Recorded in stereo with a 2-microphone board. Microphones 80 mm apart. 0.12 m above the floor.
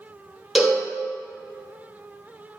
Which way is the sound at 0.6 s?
Centre (ahead or behind).